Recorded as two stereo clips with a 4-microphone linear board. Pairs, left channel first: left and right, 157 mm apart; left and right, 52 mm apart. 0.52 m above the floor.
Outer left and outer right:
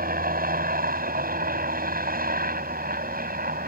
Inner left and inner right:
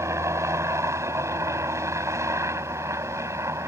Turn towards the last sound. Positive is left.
turn(degrees=-70)  # may be behind; listen again after turning